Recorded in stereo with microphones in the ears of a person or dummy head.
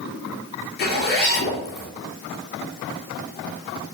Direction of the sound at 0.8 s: 55° left (ahead or behind).